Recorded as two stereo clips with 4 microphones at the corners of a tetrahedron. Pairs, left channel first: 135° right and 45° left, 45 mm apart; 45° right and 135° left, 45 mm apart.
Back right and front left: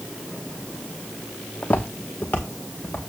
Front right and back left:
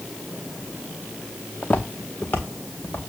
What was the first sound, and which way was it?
Footsteps, 85° right.